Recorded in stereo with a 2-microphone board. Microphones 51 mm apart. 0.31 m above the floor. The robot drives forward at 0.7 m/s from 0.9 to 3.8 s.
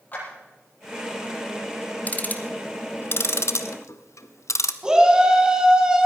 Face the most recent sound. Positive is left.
turn(degrees=-15)  # may be behind; listen again after turning